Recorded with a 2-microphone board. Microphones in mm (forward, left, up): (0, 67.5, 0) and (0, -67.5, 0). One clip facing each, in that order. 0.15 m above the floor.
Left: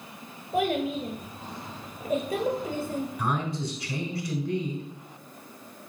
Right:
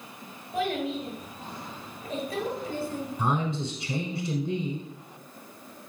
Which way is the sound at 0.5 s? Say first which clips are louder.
Left 3 dB; 50° left (ahead or behind).